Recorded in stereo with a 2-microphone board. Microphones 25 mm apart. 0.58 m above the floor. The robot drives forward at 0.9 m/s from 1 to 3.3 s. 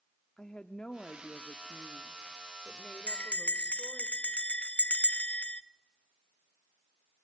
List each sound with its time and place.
0.4 s a woman speaking: 35° left (ahead or behind), 0.8 m; by 4.1 s 15° left (ahead or behind), 1.9 m
3.1 s a bell: 55° left (ahead or behind), 0.8 m; by 5.6 s 50° left (ahead or behind), 0.8 m